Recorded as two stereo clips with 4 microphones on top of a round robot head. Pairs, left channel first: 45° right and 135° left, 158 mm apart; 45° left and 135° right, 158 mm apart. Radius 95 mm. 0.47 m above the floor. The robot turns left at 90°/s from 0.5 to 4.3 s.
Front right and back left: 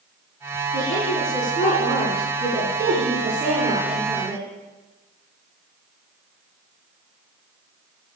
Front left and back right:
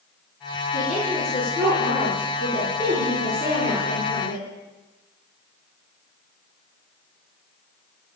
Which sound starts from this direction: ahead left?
A woman speaking, at 0.7 s.